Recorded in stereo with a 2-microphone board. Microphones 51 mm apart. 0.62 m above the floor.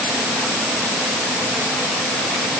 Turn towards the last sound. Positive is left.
No sound to turn to.